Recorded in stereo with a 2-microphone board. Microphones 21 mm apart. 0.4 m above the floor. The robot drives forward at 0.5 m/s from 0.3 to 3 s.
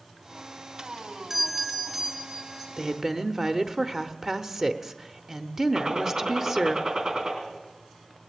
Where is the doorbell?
25° right (ahead or behind), 2 m; by 2.7 s 30° right (ahead or behind), 1.8 m.